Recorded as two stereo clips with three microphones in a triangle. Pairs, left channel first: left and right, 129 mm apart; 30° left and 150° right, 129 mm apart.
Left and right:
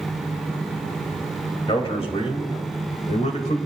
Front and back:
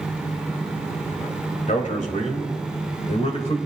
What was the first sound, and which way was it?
A man speaking, 45° left.